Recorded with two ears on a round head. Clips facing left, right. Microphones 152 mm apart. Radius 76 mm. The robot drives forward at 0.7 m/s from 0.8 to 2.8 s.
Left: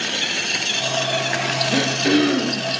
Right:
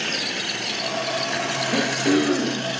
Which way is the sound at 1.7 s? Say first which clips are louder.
Left 1 dB; 20° left (ahead or behind).